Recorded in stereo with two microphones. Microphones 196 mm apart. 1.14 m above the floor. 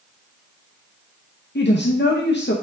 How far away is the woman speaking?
About 0.7 m.